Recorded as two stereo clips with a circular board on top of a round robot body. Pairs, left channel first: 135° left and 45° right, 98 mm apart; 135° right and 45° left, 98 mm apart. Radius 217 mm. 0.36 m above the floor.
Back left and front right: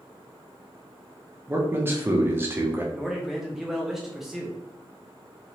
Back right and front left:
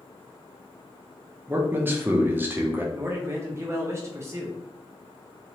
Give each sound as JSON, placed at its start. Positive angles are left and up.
{"t": 1.5, "sound": "a man speaking", "azimuth_deg": 0, "distance_m": 0.9}
{"t": 2.9, "sound": "a man speaking", "azimuth_deg": 40, "distance_m": 0.9}